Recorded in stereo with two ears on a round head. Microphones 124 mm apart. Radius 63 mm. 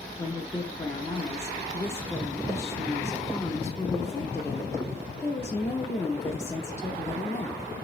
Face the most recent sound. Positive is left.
turn(degrees=20)  # may be behind; listen again after turning